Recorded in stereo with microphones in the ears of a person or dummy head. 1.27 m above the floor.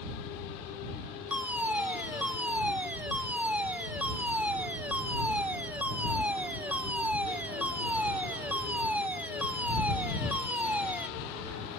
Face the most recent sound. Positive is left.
turn(degrees=-10)  # may be behind; listen again after turning